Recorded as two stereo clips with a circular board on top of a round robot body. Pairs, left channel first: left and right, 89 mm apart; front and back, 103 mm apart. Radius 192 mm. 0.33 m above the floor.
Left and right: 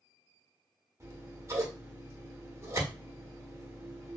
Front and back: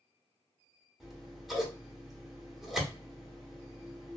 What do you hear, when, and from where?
1.0 s scissors: 95° right, 1.2 m